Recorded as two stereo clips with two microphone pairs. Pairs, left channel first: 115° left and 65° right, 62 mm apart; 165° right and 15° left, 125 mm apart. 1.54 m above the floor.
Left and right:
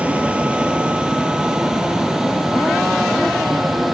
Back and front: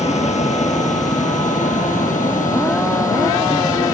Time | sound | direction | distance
0.0 | a vehicle | 135° right | ?